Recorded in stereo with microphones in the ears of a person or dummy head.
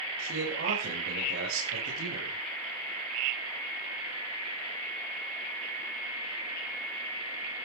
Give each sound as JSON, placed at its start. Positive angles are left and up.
{"t": 0.2, "sound": "a man speaking", "side_deg": -85, "distance_m": 6.0}